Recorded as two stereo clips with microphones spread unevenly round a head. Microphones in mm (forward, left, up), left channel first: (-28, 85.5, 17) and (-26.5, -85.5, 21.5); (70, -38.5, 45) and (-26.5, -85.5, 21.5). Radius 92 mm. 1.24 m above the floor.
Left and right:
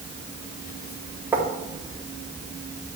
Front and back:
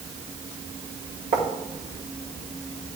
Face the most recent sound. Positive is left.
turn(degrees=-165)